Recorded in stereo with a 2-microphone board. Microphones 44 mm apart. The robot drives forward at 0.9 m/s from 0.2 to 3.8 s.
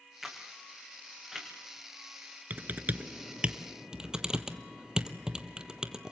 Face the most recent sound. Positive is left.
turn(degrees=-20)  # may be behind; listen again after turning